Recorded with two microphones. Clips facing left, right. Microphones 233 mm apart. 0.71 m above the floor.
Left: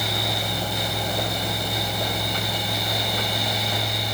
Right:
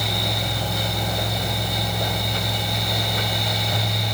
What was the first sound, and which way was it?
Only background noise.